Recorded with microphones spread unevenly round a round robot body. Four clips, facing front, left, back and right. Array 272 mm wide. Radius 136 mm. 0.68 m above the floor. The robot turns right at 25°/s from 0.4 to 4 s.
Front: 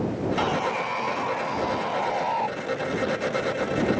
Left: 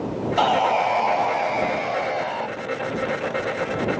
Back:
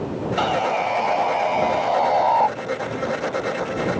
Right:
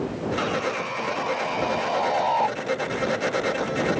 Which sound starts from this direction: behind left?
Sawing, at 0.4 s.